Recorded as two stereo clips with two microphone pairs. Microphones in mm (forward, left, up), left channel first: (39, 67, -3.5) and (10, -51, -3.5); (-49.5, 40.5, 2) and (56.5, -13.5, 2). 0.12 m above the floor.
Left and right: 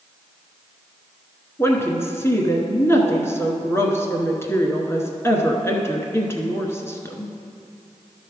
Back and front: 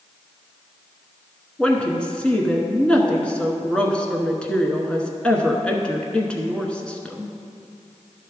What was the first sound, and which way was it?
A woman speaking, 85° left.